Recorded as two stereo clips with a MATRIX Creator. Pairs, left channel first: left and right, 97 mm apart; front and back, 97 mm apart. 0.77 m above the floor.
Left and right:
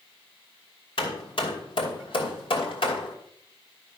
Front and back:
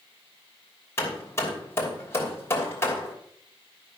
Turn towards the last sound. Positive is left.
turn(degrees=65)